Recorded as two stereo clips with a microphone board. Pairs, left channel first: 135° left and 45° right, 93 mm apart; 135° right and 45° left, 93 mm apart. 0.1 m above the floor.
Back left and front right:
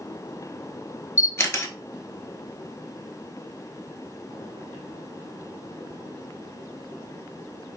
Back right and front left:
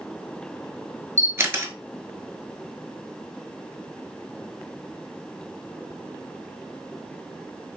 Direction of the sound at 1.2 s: 90° left.